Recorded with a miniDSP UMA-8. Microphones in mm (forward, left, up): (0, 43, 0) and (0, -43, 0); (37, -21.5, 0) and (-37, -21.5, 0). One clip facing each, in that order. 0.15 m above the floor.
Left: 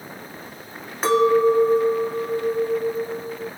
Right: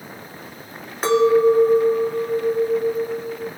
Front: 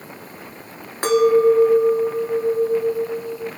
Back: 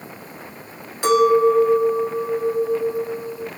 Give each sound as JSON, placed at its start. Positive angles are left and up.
{"t": 1.0, "sound": "a clink", "azimuth_deg": 5, "distance_m": 1.0}